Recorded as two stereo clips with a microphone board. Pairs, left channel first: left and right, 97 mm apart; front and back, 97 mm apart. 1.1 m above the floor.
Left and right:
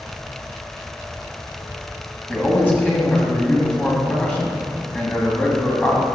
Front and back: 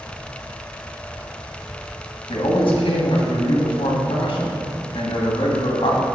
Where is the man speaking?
20° left, 1.4 m.